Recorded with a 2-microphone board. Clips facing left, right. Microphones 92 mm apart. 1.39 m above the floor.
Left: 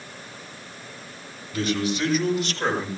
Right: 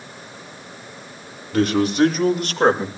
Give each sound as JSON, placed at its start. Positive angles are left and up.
{"t": 1.5, "sound": "a man speaking", "side_deg": -65, "distance_m": 5.5}